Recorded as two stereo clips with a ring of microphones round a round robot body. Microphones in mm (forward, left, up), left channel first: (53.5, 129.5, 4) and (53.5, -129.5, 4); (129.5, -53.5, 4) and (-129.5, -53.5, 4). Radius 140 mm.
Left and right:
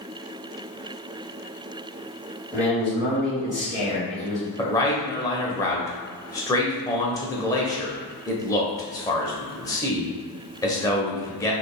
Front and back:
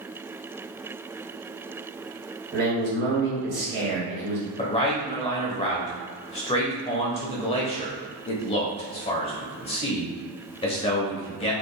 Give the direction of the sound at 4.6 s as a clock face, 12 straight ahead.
11 o'clock.